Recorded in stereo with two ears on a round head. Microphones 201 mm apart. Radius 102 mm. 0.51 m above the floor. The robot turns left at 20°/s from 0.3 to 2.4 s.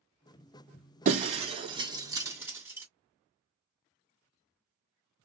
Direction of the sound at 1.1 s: 40° right (ahead or behind).